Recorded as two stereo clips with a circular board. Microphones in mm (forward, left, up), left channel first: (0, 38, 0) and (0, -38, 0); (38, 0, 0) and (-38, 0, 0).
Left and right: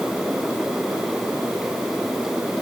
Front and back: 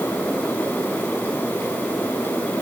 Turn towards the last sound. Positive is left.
No sound to turn to.